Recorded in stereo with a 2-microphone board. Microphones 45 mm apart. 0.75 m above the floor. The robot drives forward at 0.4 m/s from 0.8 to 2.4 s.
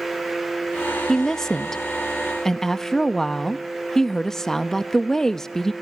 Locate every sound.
1.1 s a woman speaking: 10° left (ahead or behind), 0.6 m